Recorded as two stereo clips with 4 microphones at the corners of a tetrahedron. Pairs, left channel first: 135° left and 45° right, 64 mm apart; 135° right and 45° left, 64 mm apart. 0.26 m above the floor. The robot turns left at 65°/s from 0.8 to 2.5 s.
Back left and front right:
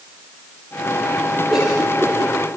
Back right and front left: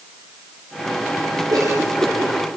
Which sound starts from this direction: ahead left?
A cough, at 1.5 s.